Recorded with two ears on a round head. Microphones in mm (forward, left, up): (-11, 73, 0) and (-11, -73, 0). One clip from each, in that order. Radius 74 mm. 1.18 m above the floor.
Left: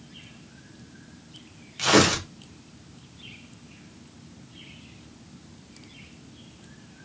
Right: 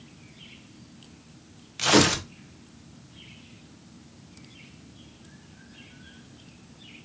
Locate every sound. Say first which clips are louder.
1.8 s tearing paper: left 1 dB; 15° right (ahead or behind), 0.6 m